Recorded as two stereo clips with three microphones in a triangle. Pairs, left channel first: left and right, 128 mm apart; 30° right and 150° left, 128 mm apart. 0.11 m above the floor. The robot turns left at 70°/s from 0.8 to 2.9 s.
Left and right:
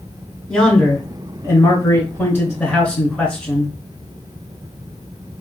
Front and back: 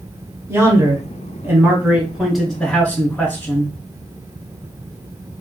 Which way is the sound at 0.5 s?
170° left.